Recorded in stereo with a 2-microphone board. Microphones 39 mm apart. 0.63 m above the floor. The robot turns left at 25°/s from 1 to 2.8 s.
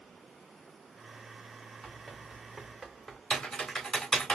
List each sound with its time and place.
1.8 s running footsteps: 10° left (ahead or behind), 3 m; by 3.2 s 15° left (ahead or behind), 2.5 m
3.3 s typing on a keyboard: 25° left (ahead or behind), 1.5 m